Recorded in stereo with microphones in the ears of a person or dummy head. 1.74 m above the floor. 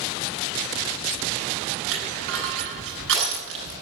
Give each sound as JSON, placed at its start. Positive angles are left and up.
{"t": 1.9, "sound": "crushing", "side_deg": -70, "distance_m": 9.0}